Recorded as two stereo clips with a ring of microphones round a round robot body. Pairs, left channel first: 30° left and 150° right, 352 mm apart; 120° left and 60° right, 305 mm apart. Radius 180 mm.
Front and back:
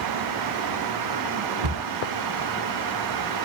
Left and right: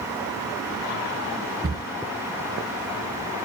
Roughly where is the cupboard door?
Behind right.